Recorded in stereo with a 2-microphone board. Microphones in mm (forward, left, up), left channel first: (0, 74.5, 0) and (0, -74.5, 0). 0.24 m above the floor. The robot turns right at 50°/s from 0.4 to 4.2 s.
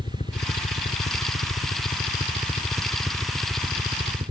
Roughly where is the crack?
I don't hear a crack.